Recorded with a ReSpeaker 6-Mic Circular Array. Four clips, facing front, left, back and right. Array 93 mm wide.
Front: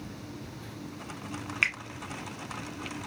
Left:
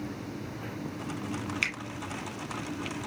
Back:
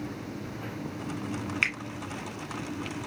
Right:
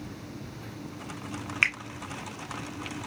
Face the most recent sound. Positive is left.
turn(degrees=-85)